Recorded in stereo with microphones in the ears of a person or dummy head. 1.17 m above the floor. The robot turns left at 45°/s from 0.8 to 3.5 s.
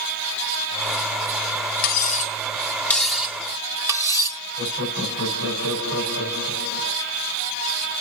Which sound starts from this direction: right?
Laughter, at 4.6 s.